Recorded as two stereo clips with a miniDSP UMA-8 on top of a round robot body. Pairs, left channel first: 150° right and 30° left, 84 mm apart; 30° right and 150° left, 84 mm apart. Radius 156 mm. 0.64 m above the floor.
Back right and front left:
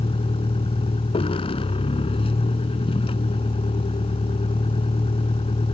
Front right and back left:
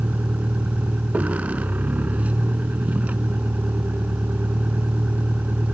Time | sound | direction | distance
0.0 | a vehicle | 135° right | ?